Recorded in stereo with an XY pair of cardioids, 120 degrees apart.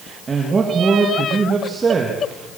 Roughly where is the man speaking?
Ahead right.